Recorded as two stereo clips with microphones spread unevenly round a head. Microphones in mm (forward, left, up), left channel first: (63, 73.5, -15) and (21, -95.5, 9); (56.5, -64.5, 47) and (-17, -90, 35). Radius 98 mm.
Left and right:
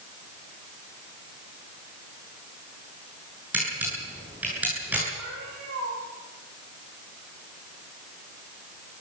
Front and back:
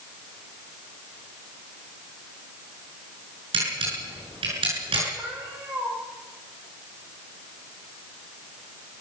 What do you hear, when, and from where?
3.5 s a camera shutter: 175° left, 9 m
5.2 s a cat meowing: 105° right, 9 m